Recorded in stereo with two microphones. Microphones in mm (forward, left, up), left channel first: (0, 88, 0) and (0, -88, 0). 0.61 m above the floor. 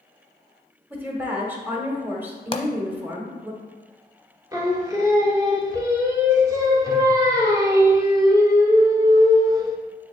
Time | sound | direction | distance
0.9 | a woman speaking | 10° right (ahead or behind) | 1.4 m
2.5 | a pop | 35° left (ahead or behind) | 0.7 m
4.5 | singing | 20° right (ahead or behind) | 0.8 m